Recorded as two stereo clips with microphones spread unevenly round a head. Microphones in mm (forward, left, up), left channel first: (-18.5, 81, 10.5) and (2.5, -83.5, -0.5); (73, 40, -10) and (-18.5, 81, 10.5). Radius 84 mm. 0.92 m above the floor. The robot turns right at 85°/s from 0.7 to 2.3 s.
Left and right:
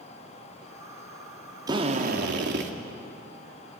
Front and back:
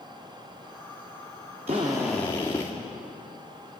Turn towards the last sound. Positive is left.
turn(degrees=-95)